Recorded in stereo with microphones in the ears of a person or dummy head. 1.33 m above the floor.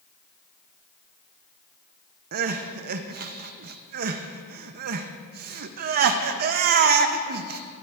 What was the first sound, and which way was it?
Crying, 50° right (ahead or behind).